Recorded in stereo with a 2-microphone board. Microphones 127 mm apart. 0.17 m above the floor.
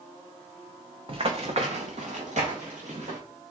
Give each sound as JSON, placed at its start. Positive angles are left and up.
{"t": 1.1, "sound": "running footsteps", "side_deg": -45, "distance_m": 0.8}